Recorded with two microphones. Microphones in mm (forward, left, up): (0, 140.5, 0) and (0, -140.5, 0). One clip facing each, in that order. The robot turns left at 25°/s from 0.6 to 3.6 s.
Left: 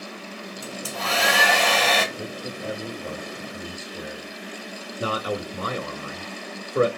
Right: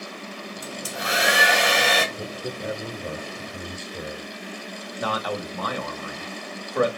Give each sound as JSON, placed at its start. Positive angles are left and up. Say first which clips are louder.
{"t": 0.6, "sound": "a hair dryer", "louder": "left 1 dB", "side_deg": -20, "distance_m": 1.3}
{"t": 2.1, "sound": "a man speaking", "louder": "right 1 dB", "side_deg": -10, "distance_m": 0.8}
{"t": 5.0, "sound": "a man speaking", "louder": "left 1 dB", "side_deg": 30, "distance_m": 1.1}